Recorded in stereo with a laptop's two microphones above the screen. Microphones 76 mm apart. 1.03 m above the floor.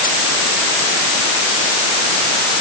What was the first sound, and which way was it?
Only background noise.